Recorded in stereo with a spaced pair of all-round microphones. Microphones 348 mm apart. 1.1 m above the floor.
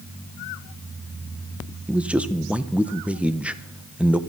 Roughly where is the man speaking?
Centre.